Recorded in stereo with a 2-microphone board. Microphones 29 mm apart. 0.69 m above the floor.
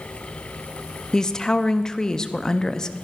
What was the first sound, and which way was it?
A woman speaking, 25° left (ahead or behind).